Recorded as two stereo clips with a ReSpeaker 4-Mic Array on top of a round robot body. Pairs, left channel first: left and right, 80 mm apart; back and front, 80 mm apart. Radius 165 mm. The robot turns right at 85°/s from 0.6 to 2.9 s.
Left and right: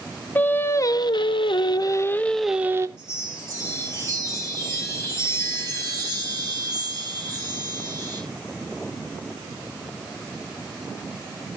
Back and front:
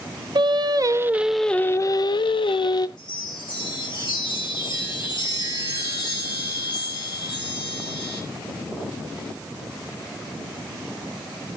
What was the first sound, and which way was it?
Singing, 25° left.